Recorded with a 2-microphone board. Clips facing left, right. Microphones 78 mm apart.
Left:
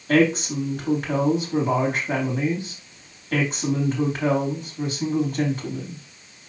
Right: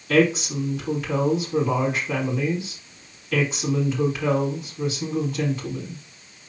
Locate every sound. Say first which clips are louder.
0.1 s a woman speaking: left 1 dB; 50° left (ahead or behind), 4 m